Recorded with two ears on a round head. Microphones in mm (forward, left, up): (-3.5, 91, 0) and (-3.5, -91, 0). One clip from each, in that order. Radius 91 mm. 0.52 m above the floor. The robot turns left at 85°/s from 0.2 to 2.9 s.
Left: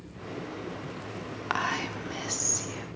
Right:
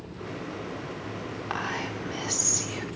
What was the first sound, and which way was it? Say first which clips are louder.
Whispering: left 3 dB; 65° left.